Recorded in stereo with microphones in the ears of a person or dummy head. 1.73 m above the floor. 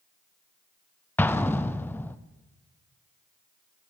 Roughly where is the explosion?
Centre.